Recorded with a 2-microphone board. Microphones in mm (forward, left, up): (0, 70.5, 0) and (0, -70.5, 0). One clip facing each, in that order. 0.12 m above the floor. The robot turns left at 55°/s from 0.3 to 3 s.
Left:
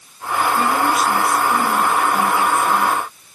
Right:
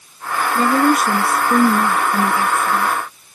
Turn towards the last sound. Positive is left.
turn(degrees=-175)